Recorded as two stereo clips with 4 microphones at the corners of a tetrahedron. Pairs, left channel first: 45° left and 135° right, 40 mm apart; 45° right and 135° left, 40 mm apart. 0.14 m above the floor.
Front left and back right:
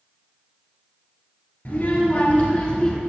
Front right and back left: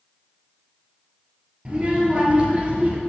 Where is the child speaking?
80° left, 1.6 m; by 3.0 s 105° left, 1.1 m.